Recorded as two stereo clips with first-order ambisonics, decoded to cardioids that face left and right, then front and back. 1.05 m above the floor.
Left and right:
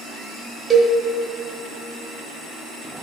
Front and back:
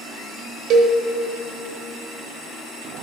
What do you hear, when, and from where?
0.7 s a cowbell: 155° right, 1.1 m